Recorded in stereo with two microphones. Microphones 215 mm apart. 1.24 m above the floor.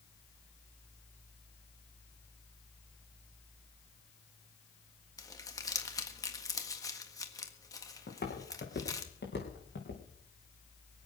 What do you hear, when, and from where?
5.2 s crumpling: 15° left (ahead or behind), 1.5 m
8.1 s footsteps: 45° left (ahead or behind), 4.5 m; by 10.0 s 60° left (ahead or behind), 5 m